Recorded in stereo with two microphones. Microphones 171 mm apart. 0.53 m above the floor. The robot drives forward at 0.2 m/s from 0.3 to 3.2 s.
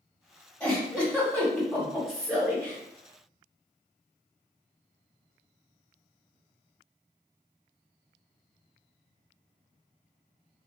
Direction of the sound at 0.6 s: 5° left (ahead or behind).